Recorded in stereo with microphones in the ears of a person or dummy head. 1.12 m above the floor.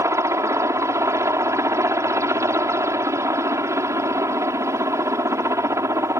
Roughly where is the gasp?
No gasp in this recording.